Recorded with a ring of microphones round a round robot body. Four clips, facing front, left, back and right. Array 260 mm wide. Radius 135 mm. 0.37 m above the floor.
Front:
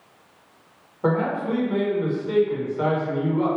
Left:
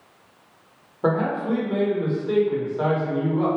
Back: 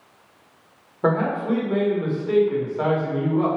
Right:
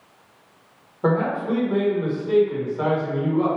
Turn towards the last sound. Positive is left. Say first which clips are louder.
# right 1 dB, back 1 dB
turn(degrees=165)